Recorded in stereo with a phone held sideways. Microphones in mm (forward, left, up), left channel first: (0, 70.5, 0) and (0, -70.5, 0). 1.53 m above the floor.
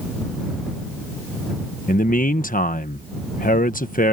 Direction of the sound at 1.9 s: 75° left (ahead or behind).